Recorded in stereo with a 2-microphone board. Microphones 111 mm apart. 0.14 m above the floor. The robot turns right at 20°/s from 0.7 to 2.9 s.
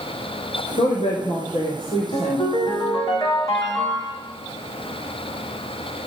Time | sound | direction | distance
0.8 | a woman speaking | 110° left | 4 m
2.1 | a ringtone | 45° left (ahead or behind) | 5.5 m